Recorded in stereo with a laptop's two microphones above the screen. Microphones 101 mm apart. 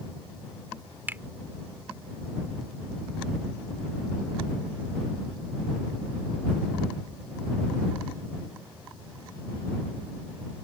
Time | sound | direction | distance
1.1 | a finger snap | 20° right (ahead or behind) | ?